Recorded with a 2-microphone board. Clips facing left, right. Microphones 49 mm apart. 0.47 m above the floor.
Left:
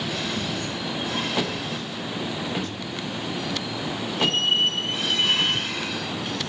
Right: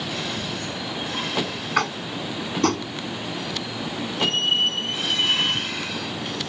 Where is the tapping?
80° right.